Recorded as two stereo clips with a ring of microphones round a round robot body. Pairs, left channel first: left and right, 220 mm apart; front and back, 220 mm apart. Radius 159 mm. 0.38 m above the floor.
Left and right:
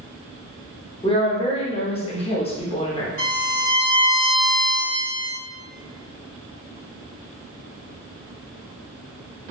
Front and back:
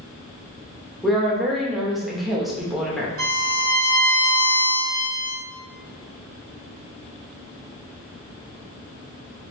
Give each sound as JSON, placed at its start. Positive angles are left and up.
{"t": 1.0, "sound": "a woman speaking", "azimuth_deg": 90, "distance_m": 0.9}
{"t": 3.2, "sound": "a violin", "azimuth_deg": -130, "distance_m": 1.8}